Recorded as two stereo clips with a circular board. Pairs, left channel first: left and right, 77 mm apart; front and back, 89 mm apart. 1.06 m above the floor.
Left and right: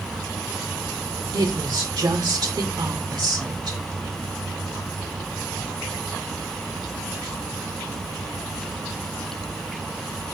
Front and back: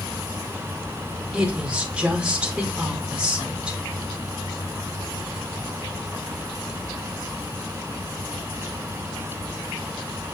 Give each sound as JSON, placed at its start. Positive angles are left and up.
{"t": 1.3, "sound": "a woman speaking", "azimuth_deg": -100, "distance_m": 1.8}